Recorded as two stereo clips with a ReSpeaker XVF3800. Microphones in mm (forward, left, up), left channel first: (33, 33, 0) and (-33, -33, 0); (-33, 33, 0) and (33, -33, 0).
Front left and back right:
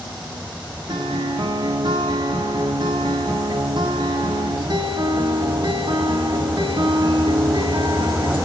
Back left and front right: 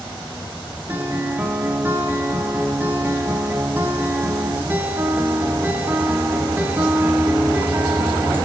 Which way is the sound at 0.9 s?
110° right.